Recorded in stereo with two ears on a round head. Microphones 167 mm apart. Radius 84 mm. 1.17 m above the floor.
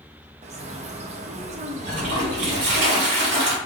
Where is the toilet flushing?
60° right (ahead or behind), 1.7 m.